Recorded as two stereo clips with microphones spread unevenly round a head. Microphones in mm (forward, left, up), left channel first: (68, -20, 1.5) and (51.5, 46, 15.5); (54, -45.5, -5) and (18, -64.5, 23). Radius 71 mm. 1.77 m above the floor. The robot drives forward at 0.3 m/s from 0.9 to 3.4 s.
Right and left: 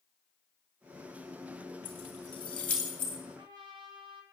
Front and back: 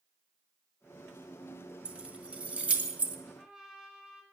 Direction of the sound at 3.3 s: 125° left.